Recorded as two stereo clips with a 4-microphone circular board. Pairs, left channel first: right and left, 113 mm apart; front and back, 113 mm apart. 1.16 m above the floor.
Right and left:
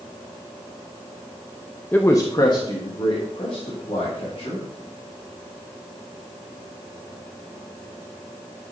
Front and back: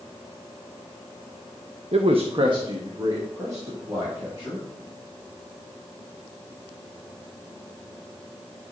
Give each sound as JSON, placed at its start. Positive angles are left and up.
{"t": 1.9, "sound": "a man speaking", "azimuth_deg": -165, "distance_m": 0.8}